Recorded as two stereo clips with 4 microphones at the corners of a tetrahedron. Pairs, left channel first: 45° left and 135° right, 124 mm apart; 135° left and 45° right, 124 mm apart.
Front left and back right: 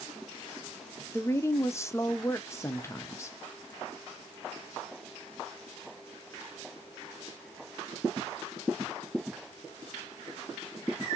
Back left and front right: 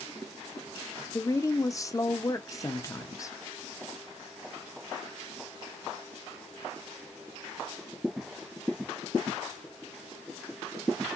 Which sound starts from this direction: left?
A woman speaking, at 1.1 s.